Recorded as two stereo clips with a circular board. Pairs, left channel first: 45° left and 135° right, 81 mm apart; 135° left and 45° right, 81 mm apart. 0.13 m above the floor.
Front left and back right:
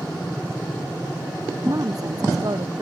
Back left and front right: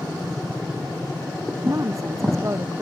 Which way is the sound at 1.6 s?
95° right.